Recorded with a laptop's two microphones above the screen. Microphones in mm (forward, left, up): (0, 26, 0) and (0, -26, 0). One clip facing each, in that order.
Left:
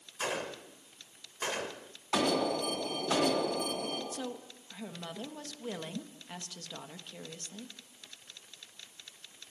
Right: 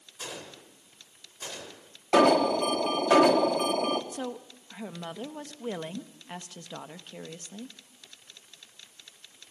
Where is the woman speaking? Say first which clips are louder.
Right 4 dB; 25° right (ahead or behind), 1.1 m.